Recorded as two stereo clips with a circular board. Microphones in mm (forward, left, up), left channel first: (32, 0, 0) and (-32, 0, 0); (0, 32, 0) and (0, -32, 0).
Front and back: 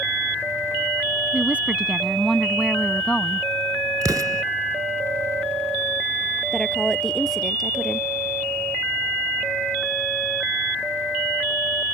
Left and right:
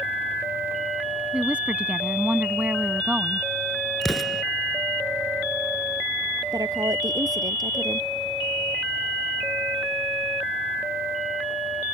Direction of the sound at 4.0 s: Straight behind.